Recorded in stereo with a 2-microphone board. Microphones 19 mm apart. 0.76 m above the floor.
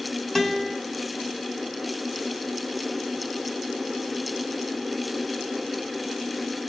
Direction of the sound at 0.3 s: 10° left (ahead or behind).